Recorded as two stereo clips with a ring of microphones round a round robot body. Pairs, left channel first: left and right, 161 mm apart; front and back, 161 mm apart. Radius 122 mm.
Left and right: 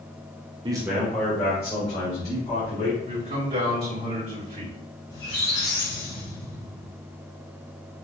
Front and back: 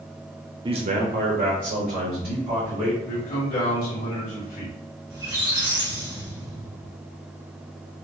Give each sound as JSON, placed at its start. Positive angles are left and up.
{"t": 0.7, "sound": "a man speaking", "azimuth_deg": -135, "distance_m": 0.6}
{"t": 3.1, "sound": "a man speaking", "azimuth_deg": -45, "distance_m": 1.7}
{"t": 5.1, "sound": "a squeak", "azimuth_deg": 115, "distance_m": 2.0}